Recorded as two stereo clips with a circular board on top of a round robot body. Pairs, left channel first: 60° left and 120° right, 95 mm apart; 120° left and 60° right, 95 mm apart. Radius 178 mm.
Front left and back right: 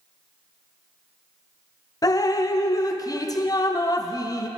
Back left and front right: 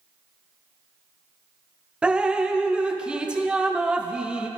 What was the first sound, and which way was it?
Dripping, 20° left.